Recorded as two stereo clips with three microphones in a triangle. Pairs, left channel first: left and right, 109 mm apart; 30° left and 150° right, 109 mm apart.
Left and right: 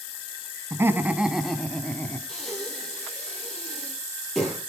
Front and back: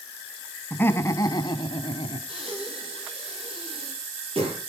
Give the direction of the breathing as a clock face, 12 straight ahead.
6 o'clock.